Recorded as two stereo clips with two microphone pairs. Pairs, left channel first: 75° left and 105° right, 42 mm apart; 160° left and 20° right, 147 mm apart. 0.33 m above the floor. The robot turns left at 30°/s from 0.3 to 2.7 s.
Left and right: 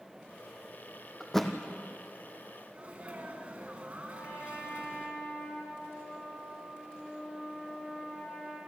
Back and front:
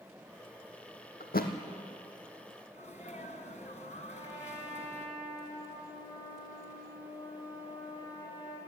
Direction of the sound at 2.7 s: 165° right.